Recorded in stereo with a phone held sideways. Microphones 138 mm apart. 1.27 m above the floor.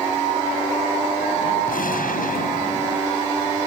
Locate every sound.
1.7 s a gunshot: 85° left